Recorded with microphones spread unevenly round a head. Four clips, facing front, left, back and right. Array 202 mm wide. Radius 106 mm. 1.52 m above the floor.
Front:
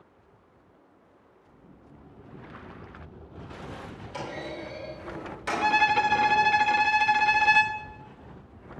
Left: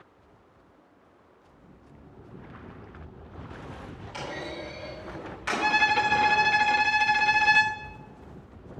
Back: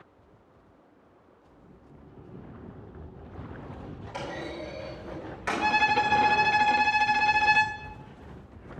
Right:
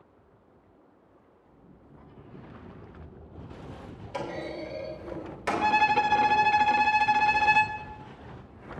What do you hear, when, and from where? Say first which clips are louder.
4.1 s a clunk: right 2 dB, even; 90° right, 4 m
5.6 s a violin: right 1 dB, front 2 dB; 160° right, 0.6 m